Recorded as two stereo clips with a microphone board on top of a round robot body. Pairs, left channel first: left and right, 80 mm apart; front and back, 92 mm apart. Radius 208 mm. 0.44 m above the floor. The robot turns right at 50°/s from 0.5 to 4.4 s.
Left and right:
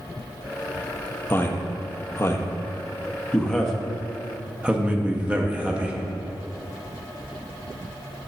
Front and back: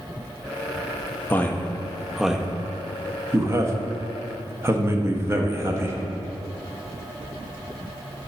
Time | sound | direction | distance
1.3 | a man speaking | 50° left | 1.0 m